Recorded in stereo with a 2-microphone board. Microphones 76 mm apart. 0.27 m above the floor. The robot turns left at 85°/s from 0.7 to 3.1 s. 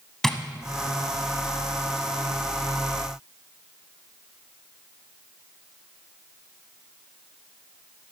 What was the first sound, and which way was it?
Tapping, 5° left (ahead or behind).